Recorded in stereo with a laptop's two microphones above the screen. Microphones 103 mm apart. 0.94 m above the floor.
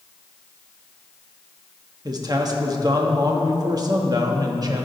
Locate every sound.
2.0 s a man speaking: 40° right (ahead or behind), 1.2 m